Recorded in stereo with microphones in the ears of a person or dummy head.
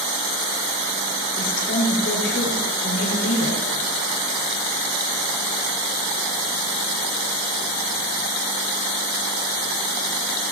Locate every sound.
1.4 s a woman speaking: 60° left (ahead or behind), 6 m